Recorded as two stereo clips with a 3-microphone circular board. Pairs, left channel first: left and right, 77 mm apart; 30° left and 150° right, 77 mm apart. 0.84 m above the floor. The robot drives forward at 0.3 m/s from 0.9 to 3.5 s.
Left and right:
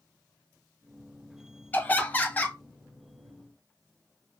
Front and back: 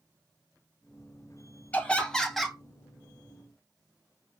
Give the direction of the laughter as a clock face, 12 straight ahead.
10 o'clock.